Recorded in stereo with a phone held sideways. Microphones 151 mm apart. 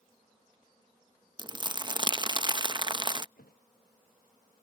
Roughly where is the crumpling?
Right.